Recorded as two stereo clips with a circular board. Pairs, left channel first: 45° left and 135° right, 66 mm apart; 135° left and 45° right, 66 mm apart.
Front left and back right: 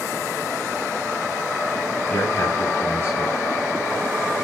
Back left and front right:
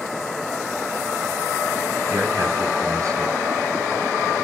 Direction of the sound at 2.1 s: 10° right.